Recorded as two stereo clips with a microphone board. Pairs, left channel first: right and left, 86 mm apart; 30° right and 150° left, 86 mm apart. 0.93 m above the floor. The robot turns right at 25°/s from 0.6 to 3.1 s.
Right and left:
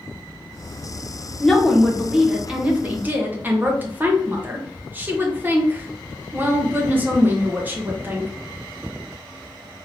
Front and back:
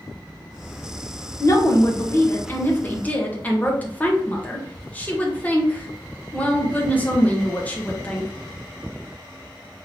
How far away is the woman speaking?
About 1.0 m.